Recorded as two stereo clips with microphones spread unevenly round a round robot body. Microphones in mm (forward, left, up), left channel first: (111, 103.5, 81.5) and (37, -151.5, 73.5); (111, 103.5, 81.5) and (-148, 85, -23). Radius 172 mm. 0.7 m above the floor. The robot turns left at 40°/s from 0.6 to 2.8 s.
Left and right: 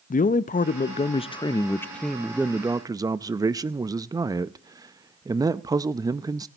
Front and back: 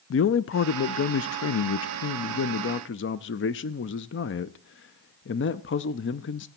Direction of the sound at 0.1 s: 45° left.